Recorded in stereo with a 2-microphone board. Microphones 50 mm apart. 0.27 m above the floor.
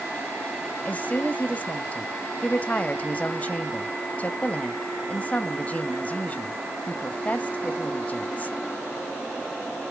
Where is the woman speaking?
30° left (ahead or behind), 1.0 m.